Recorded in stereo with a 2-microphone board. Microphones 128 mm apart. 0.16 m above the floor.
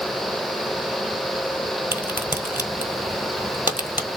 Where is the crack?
15° right (ahead or behind), 1.6 m.